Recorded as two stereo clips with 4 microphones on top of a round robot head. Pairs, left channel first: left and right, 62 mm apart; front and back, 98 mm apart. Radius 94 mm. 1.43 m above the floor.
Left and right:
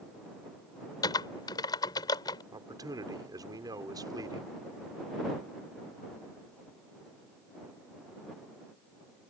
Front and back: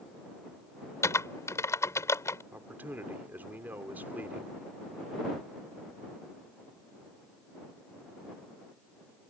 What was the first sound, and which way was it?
Typing on a keyboard, 60° left.